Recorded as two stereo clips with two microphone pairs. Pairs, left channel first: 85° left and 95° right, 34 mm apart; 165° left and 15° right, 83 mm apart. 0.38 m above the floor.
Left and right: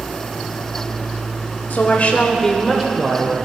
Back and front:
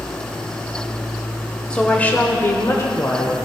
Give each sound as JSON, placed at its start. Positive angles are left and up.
{"t": 1.7, "sound": "a woman speaking", "azimuth_deg": 90, "distance_m": 1.3}